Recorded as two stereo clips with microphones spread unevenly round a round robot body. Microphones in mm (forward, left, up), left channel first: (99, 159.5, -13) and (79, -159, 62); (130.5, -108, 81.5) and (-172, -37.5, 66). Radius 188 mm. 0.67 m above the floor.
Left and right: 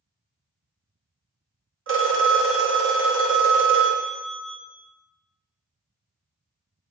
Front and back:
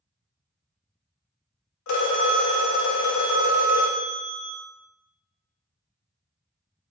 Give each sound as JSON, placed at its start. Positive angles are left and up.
{"t": 1.9, "sound": "a phone ringing", "azimuth_deg": -35, "distance_m": 0.8}